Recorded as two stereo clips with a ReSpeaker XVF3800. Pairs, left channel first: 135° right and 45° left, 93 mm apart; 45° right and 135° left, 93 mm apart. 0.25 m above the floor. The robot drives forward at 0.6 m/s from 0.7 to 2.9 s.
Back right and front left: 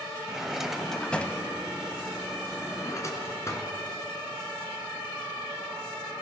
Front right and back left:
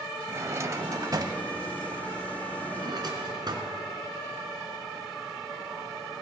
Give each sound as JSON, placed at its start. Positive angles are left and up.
{"t": 0.3, "sound": "a drawer", "azimuth_deg": 125, "distance_m": 0.6}